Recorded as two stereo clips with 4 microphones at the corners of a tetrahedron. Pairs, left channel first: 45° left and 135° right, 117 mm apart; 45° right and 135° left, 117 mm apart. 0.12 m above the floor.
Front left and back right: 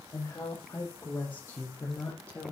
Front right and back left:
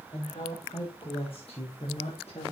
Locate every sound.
0.1 s a woman speaking: 15° right, 6.5 m; by 2.5 s 30° right, 4.5 m